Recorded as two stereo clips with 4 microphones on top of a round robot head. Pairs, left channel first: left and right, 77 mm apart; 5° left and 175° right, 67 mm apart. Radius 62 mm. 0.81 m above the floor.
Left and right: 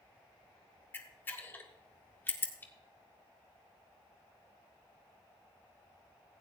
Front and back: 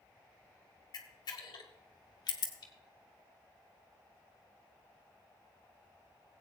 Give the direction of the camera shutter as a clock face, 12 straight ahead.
11 o'clock.